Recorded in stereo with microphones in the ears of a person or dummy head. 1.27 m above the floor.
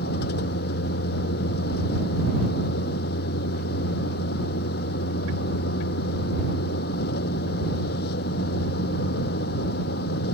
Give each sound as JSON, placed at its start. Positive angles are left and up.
{"t": 0.0, "sound": "a vehicle", "side_deg": 60}